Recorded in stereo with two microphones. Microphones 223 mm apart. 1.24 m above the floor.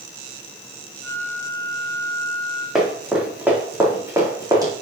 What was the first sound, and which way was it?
A flute, 60° left (ahead or behind).